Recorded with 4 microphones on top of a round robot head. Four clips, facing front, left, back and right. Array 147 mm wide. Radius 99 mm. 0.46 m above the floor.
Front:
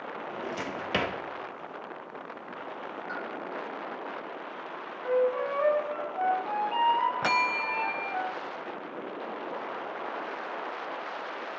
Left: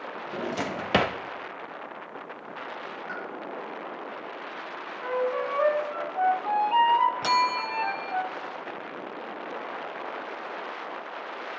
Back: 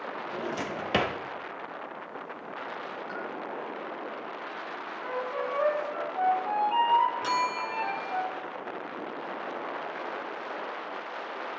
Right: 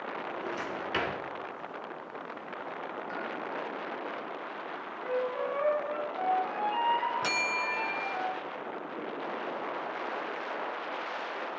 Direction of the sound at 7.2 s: 15° left.